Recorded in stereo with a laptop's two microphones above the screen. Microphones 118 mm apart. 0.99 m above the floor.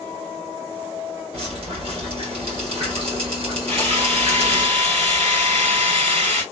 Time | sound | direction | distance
1.3 | dripping | 55° right (ahead or behind) | 1.2 m
3.7 | a drill | 80° right | 1.7 m